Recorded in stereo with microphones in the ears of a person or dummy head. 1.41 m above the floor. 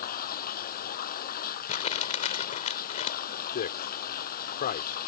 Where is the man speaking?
40° left (ahead or behind).